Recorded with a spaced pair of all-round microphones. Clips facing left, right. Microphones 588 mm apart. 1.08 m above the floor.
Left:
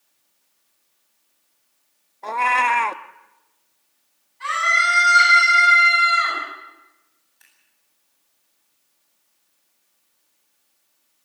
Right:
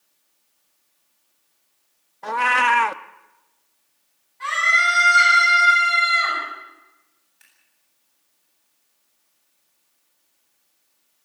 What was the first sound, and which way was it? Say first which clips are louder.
A cat meowing: even; 40° right (ahead or behind).